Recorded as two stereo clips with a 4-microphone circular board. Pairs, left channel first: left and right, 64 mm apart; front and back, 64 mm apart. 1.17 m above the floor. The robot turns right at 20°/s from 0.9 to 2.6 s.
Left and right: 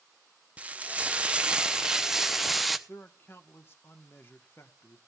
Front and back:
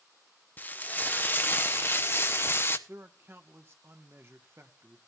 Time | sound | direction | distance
0.6 | frying | 40° right | 0.7 m
2.9 | a man speaking | 135° left | 1.2 m